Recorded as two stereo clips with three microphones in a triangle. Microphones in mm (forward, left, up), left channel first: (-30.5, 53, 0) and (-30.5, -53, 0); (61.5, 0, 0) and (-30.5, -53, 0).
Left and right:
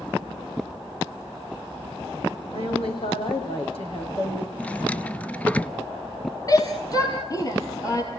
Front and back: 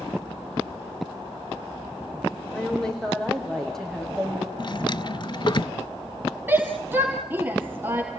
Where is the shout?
140° left, 2.5 m.